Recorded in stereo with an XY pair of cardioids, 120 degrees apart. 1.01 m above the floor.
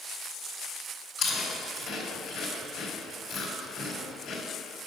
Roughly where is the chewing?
Ahead left.